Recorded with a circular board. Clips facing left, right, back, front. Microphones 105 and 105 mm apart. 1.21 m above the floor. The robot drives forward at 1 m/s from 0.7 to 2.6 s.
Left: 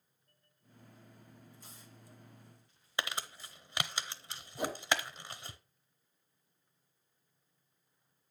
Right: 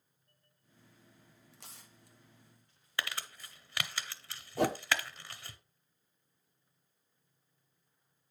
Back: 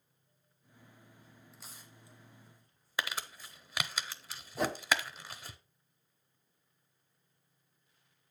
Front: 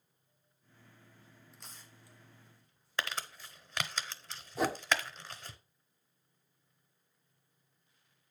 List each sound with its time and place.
1.5 s tearing paper: 90° right, 1.2 m; by 3.6 s 130° right, 1.6 m
3.0 s crumpling: 110° left, 0.6 m
4.6 s a whoosh: 90° right, 0.6 m